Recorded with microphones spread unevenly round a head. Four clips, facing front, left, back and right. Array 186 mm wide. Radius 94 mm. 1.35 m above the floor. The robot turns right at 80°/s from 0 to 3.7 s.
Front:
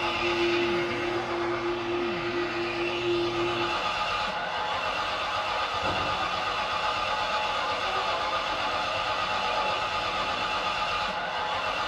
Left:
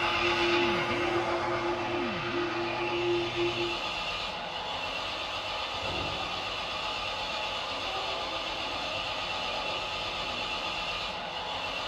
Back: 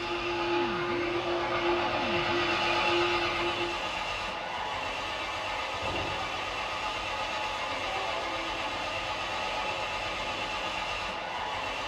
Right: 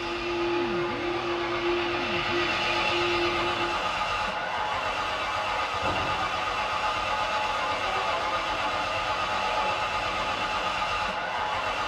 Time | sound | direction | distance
0.0 | an engine running | 25° left | 8 m